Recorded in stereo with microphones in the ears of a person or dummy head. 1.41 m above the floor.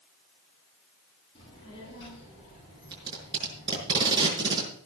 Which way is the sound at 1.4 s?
25° left (ahead or behind).